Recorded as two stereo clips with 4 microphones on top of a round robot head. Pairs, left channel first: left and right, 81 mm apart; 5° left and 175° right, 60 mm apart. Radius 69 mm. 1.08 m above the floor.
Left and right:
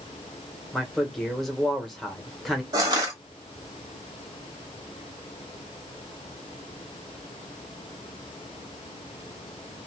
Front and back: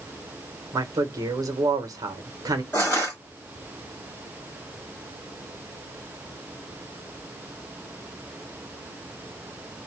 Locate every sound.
0.7 s a man speaking: 175° left, 1.2 m
2.7 s crushing: 65° right, 1.1 m